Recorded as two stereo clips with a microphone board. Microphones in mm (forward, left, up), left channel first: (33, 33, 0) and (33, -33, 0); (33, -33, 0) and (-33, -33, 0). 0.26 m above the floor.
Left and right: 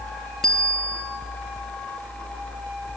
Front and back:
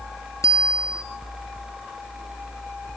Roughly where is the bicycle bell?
Ahead.